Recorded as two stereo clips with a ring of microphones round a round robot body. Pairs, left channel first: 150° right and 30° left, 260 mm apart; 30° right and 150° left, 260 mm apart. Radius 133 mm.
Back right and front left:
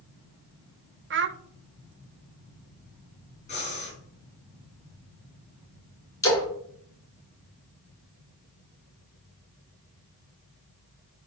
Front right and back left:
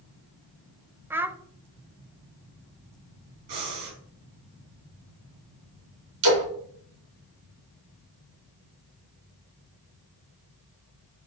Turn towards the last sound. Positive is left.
turn(degrees=130)